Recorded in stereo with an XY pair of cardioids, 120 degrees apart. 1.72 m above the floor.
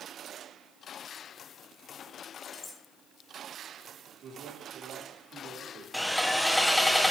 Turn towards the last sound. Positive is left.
turn(degrees=5)